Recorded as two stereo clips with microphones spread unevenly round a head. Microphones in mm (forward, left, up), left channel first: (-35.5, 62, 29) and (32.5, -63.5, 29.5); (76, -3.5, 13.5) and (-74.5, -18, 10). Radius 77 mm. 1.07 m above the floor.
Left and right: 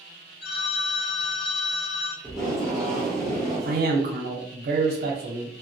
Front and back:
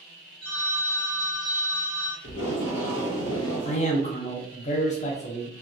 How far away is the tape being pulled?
About 0.9 m.